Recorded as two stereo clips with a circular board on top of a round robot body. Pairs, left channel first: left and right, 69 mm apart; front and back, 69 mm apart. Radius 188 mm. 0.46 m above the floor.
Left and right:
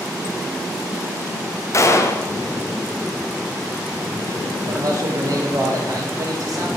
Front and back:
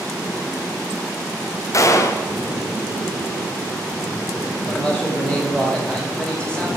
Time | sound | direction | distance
1.7 | a gunshot | 40° left | 0.6 m
4.7 | a man speaking | 75° right | 2 m